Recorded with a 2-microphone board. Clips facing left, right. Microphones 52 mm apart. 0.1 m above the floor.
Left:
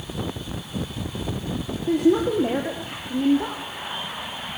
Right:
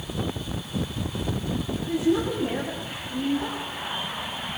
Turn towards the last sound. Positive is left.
turn(degrees=60)  # may be behind; listen again after turning